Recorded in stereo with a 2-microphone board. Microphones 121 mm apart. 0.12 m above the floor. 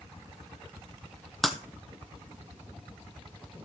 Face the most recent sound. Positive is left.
turn(degrees=5)  # may be behind; listen again after turning